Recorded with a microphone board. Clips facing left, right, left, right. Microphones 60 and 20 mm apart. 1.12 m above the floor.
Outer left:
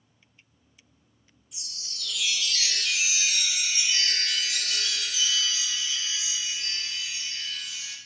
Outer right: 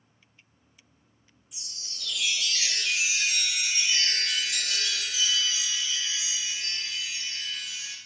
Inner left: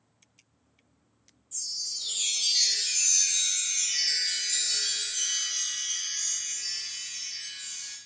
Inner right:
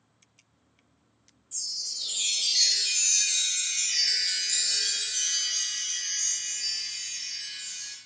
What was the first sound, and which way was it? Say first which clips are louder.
A chime: outer left 2 dB, inner right 1 dB; 15° right (ahead or behind).